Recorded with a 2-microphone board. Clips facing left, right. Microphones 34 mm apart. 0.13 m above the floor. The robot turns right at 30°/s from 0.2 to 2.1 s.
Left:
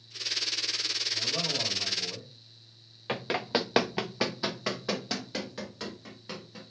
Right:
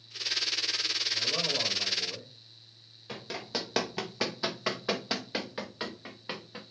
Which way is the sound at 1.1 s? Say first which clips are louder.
Right 1 dB; 45° right (ahead or behind).